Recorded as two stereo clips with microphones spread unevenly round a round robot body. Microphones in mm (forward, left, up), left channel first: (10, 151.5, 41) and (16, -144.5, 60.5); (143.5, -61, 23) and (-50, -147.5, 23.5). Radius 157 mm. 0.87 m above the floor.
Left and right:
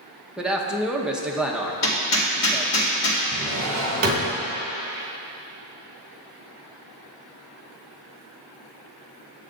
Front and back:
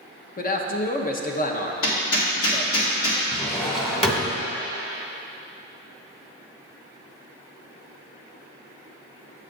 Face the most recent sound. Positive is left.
turn(degrees=-40)